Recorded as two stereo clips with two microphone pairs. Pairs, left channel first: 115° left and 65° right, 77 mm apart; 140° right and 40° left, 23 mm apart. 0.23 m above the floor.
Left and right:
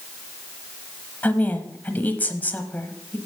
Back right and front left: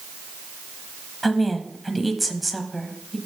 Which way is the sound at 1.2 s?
130° left.